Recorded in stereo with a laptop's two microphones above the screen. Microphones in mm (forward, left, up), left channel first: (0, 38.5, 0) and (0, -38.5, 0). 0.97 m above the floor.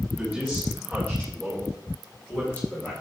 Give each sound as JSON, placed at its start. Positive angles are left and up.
{"t": 0.2, "sound": "a man speaking", "side_deg": 0, "distance_m": 4.5}